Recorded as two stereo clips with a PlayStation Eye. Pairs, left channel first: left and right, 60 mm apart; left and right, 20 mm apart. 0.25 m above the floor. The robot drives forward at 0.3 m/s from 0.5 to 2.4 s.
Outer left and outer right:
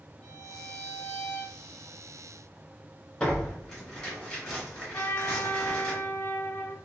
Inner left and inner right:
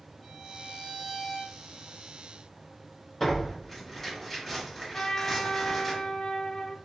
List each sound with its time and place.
0.2 s a violin: 10° left (ahead or behind), 2.5 m
3.2 s tearing paper: 5° left (ahead or behind), 2.5 m
4.9 s a trumpet: 45° left (ahead or behind), 0.7 m